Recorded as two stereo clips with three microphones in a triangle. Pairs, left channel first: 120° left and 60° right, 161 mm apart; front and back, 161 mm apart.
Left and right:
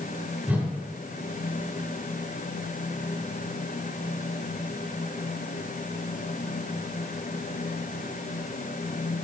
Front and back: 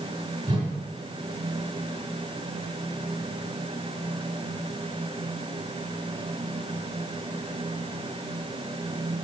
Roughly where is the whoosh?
Behind right.